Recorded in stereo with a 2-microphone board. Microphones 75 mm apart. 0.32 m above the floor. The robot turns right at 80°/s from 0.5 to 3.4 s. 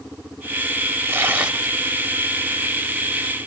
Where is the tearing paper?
55° right, 1.4 m; by 1.7 s straight ahead, 1.4 m.